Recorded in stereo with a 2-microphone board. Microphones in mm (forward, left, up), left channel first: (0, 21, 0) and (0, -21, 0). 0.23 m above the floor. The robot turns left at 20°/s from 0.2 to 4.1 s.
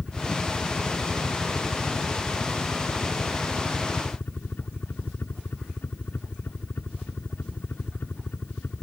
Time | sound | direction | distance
0.0 | a helicopter | 145° left | ?